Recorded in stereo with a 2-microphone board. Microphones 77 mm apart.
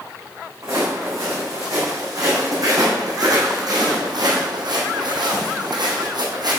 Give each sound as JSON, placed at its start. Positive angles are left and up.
{"t": 0.6, "sound": "footsteps", "side_deg": -40, "distance_m": 3.5}